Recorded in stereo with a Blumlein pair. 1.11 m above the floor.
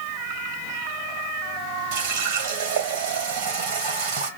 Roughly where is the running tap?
Ahead right.